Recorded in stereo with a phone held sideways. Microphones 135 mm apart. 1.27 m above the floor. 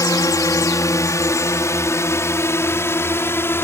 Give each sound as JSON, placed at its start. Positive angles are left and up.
{"t": 0.0, "sound": "a drone", "side_deg": 25}